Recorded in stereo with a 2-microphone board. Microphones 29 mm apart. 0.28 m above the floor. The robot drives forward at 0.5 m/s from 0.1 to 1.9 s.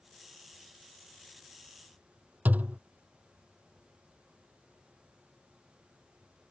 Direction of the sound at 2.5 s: 70° right (ahead or behind).